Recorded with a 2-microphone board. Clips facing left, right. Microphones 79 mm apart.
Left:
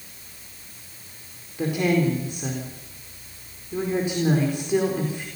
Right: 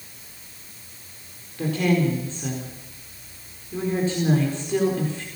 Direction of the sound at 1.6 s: 15° left (ahead or behind).